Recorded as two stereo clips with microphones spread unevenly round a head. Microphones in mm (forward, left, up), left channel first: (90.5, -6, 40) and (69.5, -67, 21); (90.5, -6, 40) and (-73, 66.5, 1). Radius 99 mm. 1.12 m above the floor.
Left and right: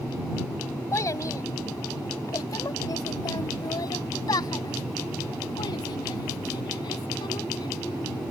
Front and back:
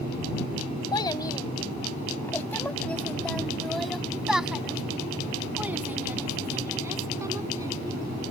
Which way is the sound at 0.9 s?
40° left.